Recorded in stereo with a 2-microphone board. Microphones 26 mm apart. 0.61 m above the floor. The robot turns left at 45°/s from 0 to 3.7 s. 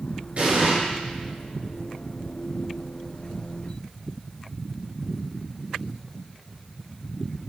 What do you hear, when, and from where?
0.4 s an explosion: 55° right (ahead or behind), 2.5 m; by 0.7 s 70° right (ahead or behind), 2.5 m